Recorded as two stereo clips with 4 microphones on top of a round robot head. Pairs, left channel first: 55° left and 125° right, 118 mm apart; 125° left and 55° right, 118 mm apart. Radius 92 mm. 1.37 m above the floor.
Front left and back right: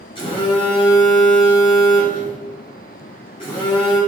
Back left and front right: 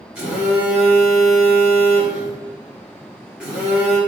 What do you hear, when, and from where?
0.1 s a phone buzzing: 25° left, 0.9 m